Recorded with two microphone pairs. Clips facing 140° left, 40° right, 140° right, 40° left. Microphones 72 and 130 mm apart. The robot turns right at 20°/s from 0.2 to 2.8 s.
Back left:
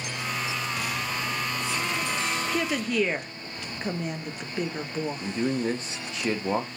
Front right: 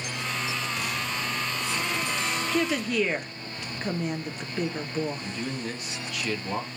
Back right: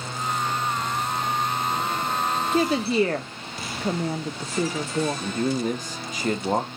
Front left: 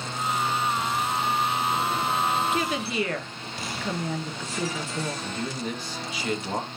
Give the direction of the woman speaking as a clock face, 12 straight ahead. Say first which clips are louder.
Front right 1 dB, back right 6 dB; 5 o'clock.